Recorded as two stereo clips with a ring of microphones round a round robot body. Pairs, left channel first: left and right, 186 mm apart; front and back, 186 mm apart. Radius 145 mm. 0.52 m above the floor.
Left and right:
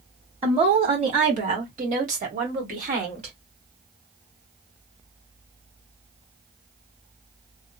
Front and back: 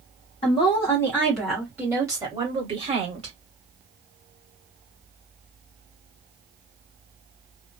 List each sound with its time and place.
0.4 s a woman speaking: 45° right, 1.2 m; by 3.4 s 135° right, 1.8 m